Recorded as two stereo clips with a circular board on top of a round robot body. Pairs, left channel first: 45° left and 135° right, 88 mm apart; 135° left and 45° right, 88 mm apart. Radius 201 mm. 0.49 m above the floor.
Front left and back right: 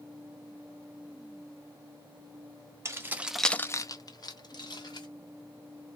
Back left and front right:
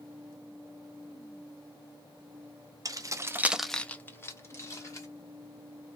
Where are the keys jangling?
80° right, 0.9 m; by 5.1 s 80° left, 1.7 m.